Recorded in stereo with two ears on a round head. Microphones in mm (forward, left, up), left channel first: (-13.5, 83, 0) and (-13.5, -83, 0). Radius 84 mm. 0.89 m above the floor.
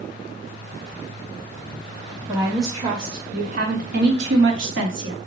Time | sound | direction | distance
2.3 | a woman speaking | 15° right (ahead or behind) | 1.3 m